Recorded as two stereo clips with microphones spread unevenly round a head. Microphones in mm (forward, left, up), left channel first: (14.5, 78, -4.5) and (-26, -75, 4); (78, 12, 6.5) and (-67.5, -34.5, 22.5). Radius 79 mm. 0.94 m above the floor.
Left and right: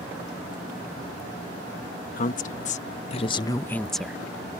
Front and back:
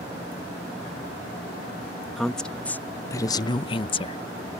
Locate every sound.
2.2 s a woman speaking: 105° left; by 4.2 s 20° right